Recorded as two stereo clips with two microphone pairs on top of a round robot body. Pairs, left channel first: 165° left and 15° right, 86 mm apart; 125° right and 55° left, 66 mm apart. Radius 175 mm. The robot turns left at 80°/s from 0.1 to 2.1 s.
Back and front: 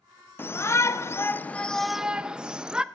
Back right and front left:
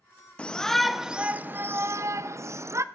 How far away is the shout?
About 0.6 m.